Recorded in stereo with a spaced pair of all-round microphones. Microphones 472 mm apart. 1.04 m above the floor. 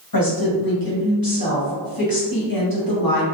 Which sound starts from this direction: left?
A woman speaking, at 0.1 s.